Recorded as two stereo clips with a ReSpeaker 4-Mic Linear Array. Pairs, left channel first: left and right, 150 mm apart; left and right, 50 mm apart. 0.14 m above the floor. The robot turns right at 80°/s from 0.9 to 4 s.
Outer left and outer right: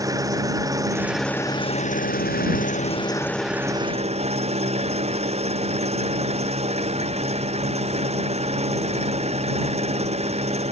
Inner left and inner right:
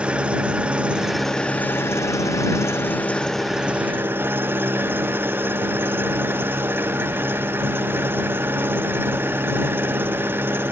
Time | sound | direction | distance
0.0 | an engine running | 25° right | ?